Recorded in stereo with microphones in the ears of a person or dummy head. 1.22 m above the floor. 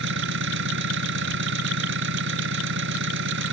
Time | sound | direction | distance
0.0 | an engine running | 65° right (ahead or behind) | ?